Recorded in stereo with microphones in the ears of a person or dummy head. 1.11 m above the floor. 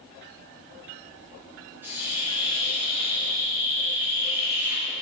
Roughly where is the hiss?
Centre.